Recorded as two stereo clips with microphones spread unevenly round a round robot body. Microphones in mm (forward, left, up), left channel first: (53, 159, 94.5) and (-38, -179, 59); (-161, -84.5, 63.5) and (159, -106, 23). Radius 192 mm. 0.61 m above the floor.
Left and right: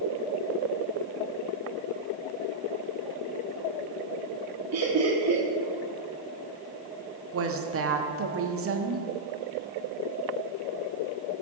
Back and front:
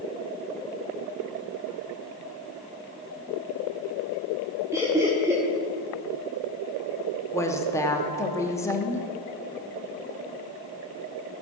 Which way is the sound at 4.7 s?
80° right.